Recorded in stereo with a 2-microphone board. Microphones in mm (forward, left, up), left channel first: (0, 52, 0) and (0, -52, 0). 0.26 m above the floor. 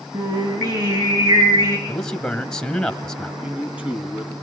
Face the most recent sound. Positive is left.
turn(degrees=-15)  # may be behind; listen again after turning